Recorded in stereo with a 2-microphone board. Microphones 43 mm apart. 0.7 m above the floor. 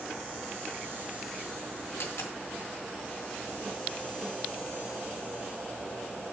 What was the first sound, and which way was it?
A dropped coin, 75° left (ahead or behind).